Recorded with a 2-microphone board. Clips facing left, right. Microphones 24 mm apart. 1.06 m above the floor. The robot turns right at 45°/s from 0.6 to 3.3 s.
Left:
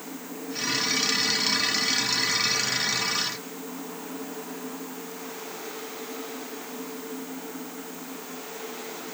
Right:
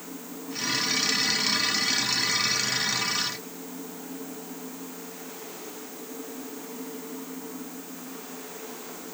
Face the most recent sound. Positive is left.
No sound to turn to.